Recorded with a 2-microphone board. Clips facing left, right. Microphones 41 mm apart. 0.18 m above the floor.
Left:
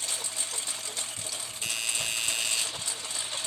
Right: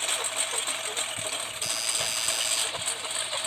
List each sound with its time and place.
0.0 s a lawn mower: 45° right (ahead or behind); by 3.5 s 30° right (ahead or behind)
1.6 s a doorbell: 35° left (ahead or behind)